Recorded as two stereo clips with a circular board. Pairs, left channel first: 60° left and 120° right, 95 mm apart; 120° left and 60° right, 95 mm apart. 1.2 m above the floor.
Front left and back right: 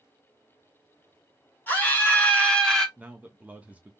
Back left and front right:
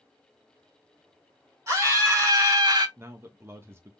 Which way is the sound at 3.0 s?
65° right.